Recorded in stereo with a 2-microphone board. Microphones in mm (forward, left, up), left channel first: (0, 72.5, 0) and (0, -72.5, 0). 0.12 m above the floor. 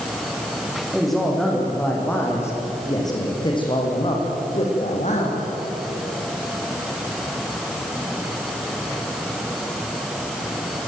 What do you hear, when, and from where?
0.9 s a man speaking: centre (ahead or behind), 7.5 m; by 5.5 s 55° left (ahead or behind), 7.5 m